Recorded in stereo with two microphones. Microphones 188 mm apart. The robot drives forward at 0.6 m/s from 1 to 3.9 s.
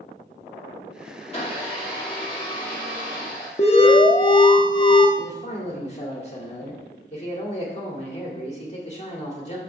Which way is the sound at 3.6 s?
35° left (ahead or behind).